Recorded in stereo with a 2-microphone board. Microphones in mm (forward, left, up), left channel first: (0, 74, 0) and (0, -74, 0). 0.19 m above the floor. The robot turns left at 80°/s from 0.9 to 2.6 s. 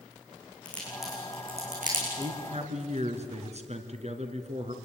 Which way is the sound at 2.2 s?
30° right.